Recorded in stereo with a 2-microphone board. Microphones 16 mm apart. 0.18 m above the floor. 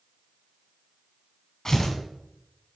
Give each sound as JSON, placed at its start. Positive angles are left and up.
{"t": 1.6, "sound": "tearing paper", "side_deg": 30, "distance_m": 1.6}